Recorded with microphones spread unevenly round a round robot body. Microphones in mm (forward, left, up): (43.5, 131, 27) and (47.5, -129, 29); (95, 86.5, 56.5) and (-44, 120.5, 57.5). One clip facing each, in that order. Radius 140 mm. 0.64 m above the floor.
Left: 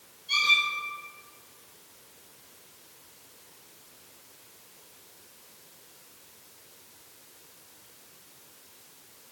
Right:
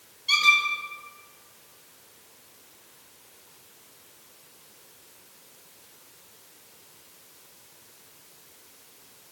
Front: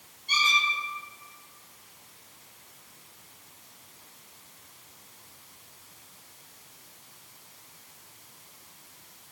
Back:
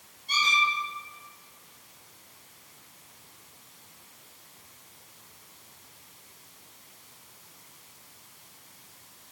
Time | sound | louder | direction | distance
0.3 | a squeak | right 5 dB, even | 90° right | 2 m